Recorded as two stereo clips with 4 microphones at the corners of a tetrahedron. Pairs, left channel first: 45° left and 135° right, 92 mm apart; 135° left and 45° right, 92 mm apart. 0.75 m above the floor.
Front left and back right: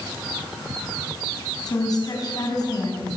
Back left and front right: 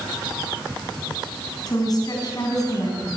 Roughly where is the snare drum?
I don't hear a snare drum.